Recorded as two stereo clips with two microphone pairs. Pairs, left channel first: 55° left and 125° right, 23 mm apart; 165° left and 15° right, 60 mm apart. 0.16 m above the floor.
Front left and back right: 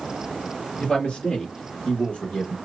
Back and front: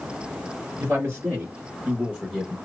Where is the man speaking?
25° left, 2.5 m; by 2.6 s 70° left, 2 m.